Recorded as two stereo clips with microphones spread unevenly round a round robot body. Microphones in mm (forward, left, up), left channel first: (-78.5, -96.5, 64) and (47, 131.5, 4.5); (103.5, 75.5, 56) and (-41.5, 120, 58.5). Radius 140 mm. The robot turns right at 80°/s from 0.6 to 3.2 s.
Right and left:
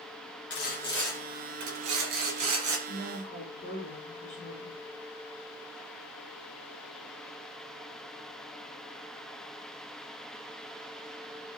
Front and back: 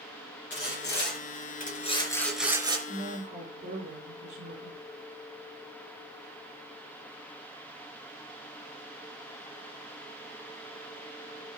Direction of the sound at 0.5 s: 65° right.